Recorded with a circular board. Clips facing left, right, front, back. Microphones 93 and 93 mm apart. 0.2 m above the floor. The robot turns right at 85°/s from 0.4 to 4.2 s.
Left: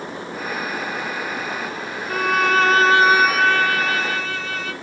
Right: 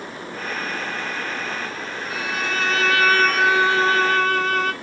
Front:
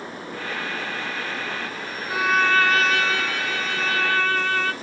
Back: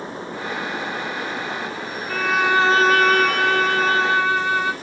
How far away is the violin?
About 0.7 m.